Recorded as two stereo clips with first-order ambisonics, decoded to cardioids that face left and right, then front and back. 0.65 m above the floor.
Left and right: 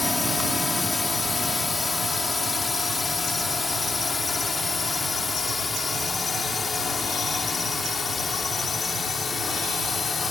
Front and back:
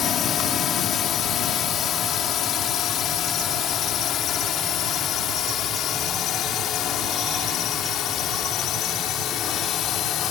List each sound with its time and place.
0.0 s a drone: 15° left; by 10.3 s 25° left